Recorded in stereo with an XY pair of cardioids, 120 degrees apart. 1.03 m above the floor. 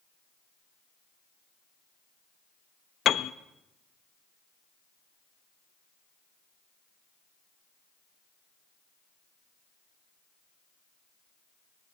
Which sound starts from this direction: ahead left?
A piano, at 3.0 s.